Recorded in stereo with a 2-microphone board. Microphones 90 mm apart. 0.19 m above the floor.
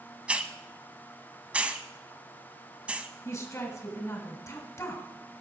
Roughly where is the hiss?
Centre.